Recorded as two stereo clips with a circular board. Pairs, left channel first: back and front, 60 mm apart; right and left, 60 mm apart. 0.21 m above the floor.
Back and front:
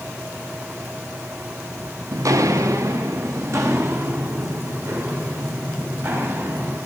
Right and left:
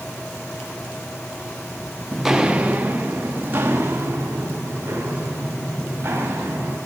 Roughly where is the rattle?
No rattle in this recording.